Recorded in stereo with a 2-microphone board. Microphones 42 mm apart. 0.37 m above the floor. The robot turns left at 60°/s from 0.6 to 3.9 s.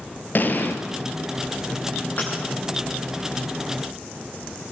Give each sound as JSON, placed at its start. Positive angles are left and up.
{"t": 0.3, "sound": "an explosion", "side_deg": 50, "distance_m": 2.5}
{"t": 2.2, "sound": "breaking glass", "side_deg": 40, "distance_m": 8.5}